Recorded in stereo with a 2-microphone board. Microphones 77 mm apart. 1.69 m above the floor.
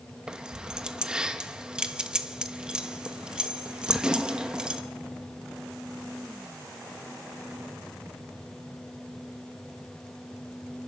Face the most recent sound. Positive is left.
turn(degrees=-10)  # may be behind; listen again after turning